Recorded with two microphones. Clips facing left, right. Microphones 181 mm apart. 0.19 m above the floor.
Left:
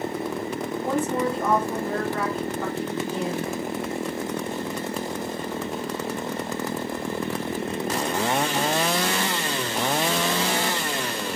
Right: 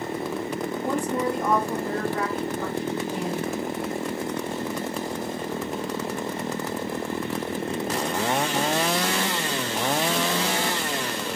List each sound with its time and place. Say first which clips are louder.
0.8 s a woman speaking: left 1 dB; 15° right (ahead or behind), 1.3 m